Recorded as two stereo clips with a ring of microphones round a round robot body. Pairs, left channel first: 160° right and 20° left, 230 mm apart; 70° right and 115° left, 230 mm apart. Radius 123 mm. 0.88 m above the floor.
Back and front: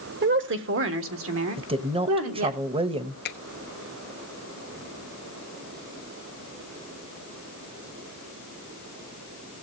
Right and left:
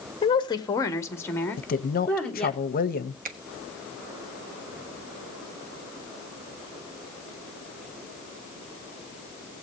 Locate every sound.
0.2 s a woman speaking: 5° right, 1.4 m; by 2.6 s 20° left, 3 m
1.6 s a woman speaking: 35° right, 1.1 m
3.2 s a finger snap: 160° left, 1.1 m